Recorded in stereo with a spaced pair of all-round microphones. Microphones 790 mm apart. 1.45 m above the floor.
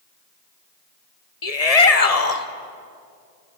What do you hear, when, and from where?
1.4 s a shout: 50° left (ahead or behind), 1.4 m